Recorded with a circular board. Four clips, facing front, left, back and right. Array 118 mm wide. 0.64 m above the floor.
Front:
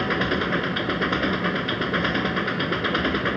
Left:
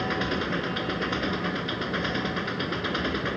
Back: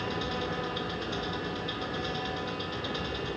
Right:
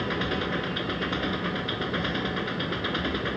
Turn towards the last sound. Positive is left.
turn(degrees=5)